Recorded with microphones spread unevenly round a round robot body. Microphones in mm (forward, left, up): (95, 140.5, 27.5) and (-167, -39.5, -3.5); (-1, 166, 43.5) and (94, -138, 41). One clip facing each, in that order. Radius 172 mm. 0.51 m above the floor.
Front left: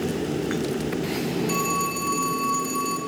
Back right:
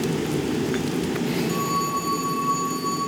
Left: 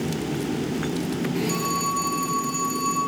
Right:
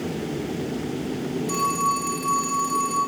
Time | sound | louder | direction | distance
1.5 | a phone ringing | back right 1 dB, left 1 dB | 15° right | 5.5 m